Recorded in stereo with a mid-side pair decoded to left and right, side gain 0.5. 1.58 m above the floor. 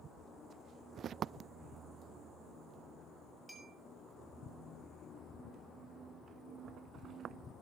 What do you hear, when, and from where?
3.5 s a clink: 10° right, 4.5 m